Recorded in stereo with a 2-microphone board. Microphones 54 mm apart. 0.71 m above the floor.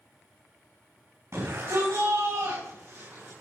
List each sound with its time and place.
1.3 s a shout: 75° right (ahead or behind), 3.5 m; by 3.3 s 70° right (ahead or behind), 4.5 m